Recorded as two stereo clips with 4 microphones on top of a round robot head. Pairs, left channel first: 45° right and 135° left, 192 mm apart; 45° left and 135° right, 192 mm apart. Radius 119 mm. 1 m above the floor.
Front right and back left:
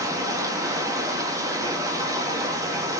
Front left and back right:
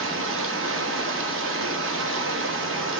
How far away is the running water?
About 2.0 m.